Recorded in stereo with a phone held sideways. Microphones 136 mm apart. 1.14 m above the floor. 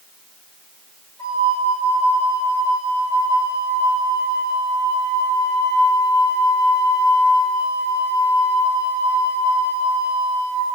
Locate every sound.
1.2 s a flute: 25° left (ahead or behind), 5 m